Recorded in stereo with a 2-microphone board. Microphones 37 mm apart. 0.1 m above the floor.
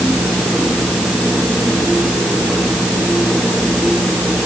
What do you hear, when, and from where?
Only background noise.